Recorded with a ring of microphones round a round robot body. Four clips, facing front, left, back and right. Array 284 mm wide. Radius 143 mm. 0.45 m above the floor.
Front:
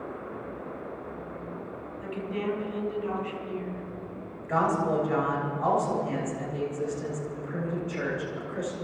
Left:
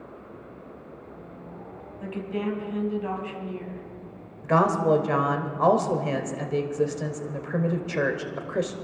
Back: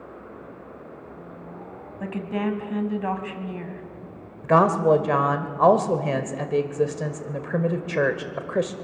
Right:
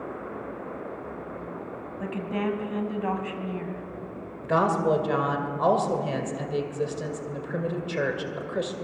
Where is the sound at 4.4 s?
170° left, 2.0 m.